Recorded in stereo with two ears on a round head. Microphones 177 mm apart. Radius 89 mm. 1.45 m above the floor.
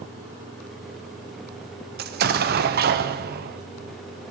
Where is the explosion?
50° right (ahead or behind), 0.8 m.